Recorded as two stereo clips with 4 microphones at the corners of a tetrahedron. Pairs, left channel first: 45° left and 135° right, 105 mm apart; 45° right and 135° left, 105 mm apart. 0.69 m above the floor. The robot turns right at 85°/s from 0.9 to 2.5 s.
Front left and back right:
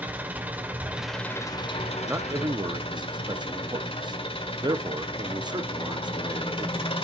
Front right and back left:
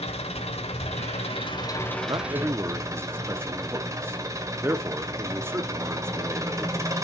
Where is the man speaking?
160° left, 0.7 m; by 6.8 s 165° right, 0.7 m.